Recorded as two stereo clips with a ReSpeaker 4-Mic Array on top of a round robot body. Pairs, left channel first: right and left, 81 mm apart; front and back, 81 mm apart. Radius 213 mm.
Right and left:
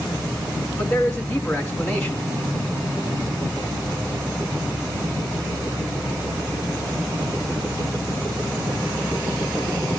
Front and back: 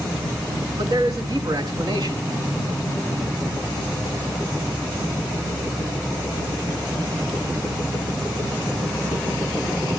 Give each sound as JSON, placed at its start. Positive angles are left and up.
{"t": 0.8, "sound": "a man speaking", "azimuth_deg": -145, "distance_m": 3.5}